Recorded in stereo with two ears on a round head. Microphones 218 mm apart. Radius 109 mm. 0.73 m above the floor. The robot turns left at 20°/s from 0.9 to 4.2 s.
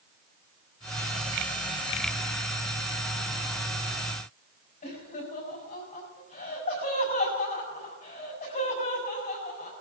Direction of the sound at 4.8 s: 40° left (ahead or behind).